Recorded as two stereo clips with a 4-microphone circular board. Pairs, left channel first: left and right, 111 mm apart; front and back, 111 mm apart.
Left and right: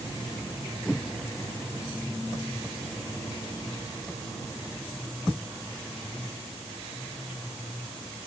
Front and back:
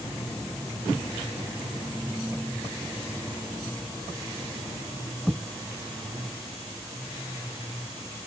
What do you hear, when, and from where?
Only background noise.